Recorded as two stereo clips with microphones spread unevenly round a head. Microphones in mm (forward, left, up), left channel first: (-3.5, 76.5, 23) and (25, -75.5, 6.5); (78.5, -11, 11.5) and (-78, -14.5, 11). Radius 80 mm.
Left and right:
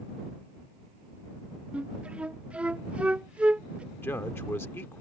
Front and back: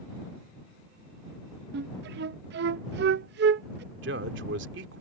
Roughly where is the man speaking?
Behind.